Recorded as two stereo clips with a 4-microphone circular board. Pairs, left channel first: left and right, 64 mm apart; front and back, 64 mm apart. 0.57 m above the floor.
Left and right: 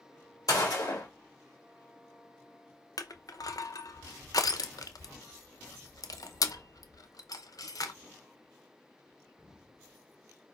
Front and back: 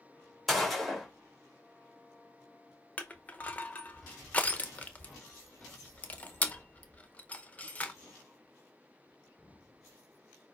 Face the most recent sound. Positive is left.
turn(degrees=65)